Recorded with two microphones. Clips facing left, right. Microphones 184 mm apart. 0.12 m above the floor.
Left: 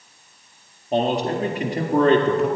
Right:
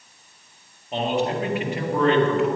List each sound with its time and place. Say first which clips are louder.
0.9 s a man speaking: left 3 dB; 40° left (ahead or behind), 2 m